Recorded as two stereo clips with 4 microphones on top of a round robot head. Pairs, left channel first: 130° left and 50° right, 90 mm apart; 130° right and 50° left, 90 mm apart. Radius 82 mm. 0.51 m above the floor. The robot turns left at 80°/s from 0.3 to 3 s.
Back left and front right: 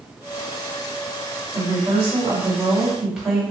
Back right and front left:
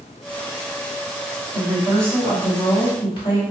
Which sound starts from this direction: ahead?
A woman speaking, at 1.5 s.